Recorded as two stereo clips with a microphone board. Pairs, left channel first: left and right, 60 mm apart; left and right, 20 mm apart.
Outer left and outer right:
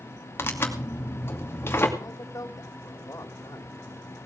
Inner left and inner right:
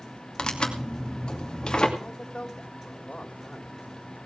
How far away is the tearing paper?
About 2.5 m.